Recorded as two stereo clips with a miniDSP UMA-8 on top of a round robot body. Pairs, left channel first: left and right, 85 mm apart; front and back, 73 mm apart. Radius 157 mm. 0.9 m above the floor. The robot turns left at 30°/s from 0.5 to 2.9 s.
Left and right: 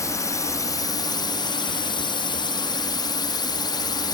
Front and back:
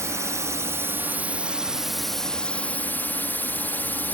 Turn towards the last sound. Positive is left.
turn(degrees=65)